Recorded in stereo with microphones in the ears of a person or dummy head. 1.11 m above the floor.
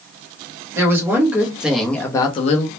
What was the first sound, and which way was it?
A woman speaking, 20° right (ahead or behind).